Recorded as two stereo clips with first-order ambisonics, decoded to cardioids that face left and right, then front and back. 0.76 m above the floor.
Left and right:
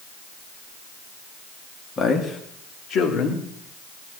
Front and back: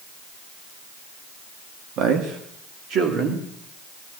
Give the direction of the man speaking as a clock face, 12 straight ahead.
7 o'clock.